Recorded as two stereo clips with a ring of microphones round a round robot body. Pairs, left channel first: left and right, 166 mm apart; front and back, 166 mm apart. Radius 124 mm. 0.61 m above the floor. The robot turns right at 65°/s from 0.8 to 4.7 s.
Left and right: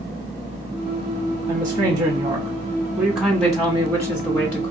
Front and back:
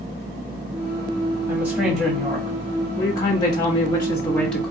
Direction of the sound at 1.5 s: 130° right.